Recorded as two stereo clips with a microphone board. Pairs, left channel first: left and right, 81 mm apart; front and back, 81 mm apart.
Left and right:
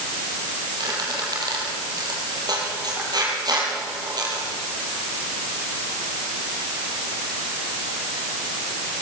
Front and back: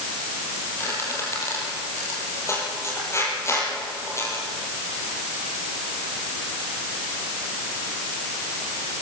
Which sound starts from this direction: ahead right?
A squeak, at 0.8 s.